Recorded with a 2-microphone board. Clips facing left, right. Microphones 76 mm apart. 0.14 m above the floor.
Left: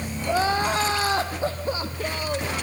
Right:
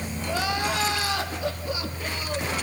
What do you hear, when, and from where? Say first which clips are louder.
0.3 s crying: left 5 dB; 35° left (ahead or behind), 3 m